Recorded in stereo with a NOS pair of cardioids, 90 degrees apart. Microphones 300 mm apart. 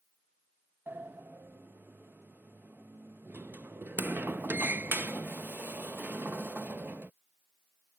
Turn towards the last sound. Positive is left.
turn(degrees=-5)